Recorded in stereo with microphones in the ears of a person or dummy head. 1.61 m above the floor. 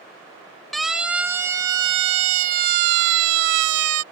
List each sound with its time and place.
0.7 s a siren: centre (ahead or behind); by 4.0 s 85° right